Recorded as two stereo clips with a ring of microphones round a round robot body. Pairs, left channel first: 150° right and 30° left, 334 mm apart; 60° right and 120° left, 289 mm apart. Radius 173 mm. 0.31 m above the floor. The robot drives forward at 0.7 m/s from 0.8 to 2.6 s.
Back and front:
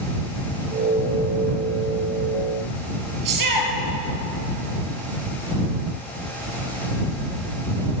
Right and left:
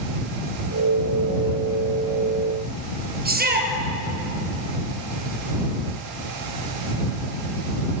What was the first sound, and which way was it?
A shout, 60° left.